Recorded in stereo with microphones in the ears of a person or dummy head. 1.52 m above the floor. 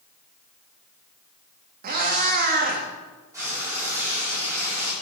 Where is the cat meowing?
50° right (ahead or behind), 1.4 m.